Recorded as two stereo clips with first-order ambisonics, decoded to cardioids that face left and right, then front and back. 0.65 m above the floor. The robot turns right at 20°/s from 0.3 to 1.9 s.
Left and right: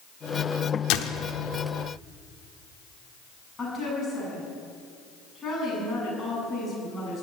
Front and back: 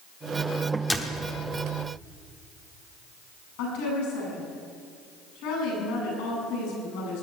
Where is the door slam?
85° left, 1.2 m; by 1.2 s 95° left, 1.2 m.